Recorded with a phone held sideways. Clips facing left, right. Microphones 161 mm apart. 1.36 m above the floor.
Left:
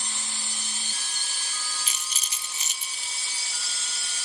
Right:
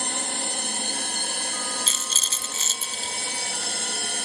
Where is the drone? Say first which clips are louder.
Right 10 dB; 65° right (ahead or behind).